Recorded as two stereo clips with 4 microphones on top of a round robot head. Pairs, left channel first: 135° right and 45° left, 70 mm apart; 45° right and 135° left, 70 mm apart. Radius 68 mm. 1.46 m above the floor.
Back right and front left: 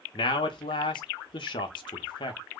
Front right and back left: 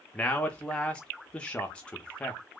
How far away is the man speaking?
About 0.7 m.